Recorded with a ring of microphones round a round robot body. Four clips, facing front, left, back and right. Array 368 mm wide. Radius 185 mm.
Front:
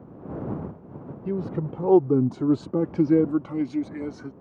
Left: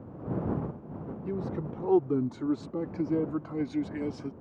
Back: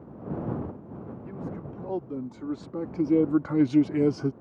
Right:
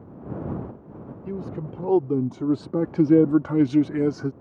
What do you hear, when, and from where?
1.2 s a man speaking: 5° right; by 4.3 s 140° right